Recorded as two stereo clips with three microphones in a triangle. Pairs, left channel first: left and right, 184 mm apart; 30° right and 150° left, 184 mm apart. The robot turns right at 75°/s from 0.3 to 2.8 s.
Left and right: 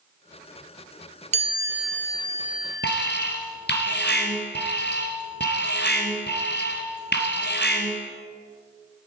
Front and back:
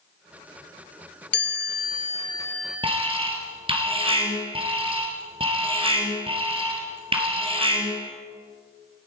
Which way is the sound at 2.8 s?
90° left.